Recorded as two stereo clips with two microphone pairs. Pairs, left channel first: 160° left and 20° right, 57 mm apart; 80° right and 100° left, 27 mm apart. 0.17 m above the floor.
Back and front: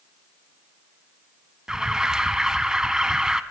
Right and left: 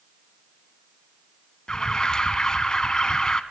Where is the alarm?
85° right, 1.1 m.